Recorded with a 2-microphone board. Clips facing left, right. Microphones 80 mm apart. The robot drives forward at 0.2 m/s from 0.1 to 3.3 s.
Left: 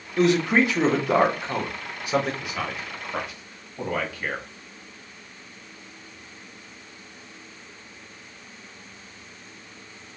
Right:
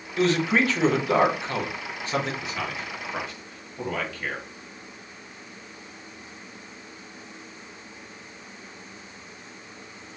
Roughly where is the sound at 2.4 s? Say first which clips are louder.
Left 1 dB; centre.